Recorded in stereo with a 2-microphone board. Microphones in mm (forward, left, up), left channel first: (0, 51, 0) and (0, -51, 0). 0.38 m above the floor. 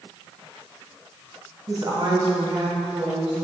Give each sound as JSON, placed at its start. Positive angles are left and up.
{"t": 1.7, "sound": "a woman speaking", "side_deg": -45, "distance_m": 2.0}